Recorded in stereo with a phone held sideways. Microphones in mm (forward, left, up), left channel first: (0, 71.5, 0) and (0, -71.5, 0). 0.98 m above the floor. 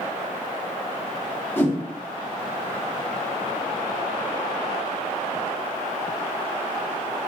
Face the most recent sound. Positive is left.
turn(degrees=15)  # may be behind; listen again after turning